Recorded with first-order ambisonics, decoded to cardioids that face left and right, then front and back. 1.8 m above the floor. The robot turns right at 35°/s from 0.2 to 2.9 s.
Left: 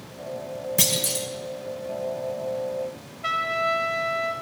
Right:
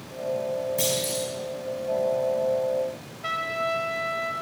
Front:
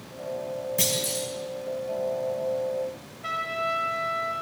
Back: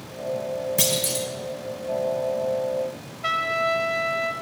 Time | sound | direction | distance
0.8 | a clunk | 120° left | 1.8 m
3.2 | a trumpet | 155° left | 0.9 m